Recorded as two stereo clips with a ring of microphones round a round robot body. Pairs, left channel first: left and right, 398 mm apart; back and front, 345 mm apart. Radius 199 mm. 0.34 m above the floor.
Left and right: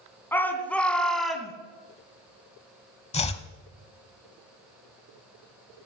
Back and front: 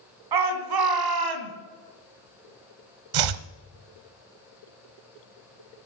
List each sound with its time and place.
0.3 s a shout: 5° left, 3 m; by 1.5 s straight ahead, 2.5 m
3.1 s chopping: 15° left, 0.8 m